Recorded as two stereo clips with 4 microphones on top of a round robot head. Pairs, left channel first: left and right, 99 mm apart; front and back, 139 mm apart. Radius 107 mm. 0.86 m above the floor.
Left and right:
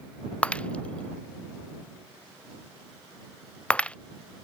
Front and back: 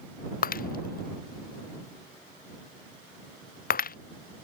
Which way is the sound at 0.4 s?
10° left.